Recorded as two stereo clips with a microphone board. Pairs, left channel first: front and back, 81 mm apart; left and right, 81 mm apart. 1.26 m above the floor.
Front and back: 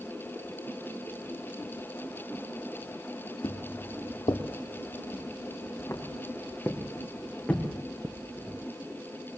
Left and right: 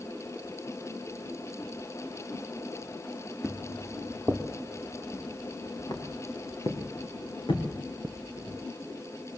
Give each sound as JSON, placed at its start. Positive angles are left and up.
{"t": 3.4, "sound": "footsteps", "azimuth_deg": -10, "distance_m": 3.5}